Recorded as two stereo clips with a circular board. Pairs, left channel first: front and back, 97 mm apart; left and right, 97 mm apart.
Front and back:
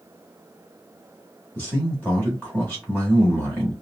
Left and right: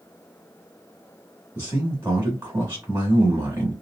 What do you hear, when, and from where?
1.6 s a man speaking: 50° right, 1.5 m